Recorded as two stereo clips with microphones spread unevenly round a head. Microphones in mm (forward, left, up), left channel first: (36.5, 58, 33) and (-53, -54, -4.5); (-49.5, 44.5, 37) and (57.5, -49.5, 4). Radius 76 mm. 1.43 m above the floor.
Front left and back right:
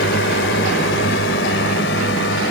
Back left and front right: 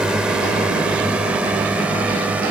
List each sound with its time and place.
0.0 s a drone: 45° left; by 2.5 s 40° left